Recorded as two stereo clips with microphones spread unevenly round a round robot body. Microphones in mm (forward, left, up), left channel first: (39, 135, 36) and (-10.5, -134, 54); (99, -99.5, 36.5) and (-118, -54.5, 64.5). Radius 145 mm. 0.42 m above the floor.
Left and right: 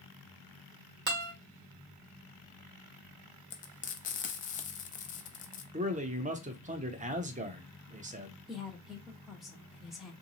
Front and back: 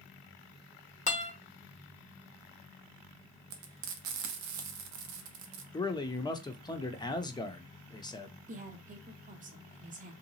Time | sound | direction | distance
1.1 | a guitar | 55° right | 1.4 m
3.5 | frying | 145° left | 0.6 m
5.7 | a man speaking | 55° right | 0.8 m
8.5 | a woman speaking | 165° left | 0.9 m